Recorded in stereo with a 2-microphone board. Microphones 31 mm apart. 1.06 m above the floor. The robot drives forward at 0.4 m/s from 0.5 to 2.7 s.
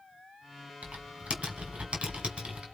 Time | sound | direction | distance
0.8 | typing on a keyboard | 45° right (ahead or behind) | 3 m